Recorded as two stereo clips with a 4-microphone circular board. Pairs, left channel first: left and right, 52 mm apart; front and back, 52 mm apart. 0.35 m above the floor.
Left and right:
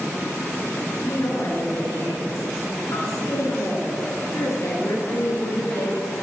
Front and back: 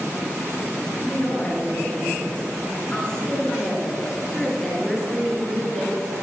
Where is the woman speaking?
60° left, 4.5 m; by 6.1 s 95° left, 5 m.